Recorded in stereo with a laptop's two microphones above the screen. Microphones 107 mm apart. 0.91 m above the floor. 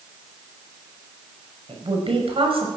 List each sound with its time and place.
1.7 s a woman speaking: 55° right (ahead or behind), 5.5 m